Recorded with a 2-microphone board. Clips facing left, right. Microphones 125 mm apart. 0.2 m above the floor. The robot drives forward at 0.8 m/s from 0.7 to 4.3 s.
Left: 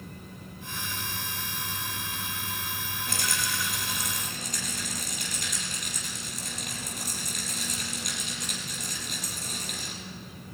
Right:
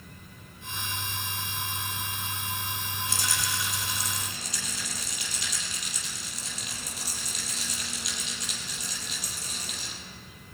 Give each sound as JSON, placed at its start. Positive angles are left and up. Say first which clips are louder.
{"t": 3.1, "sound": "a rattle", "louder": "left 1 dB", "side_deg": 60, "distance_m": 4.0}